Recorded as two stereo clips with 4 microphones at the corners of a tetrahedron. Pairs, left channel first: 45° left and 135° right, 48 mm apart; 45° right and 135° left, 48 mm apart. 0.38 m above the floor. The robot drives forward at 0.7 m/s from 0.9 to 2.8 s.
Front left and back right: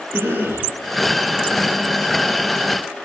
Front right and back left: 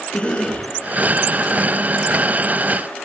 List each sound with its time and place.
0.1 s a cough: 105° right, 9.5 m